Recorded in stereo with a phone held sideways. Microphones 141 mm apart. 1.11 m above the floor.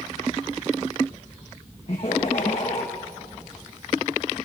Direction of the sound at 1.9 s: 50° left (ahead or behind).